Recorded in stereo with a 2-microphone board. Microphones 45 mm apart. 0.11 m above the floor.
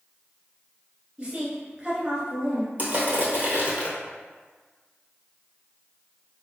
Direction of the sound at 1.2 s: 25° right (ahead or behind).